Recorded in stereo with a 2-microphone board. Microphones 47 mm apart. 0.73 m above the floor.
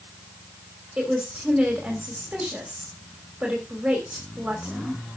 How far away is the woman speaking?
About 3 m.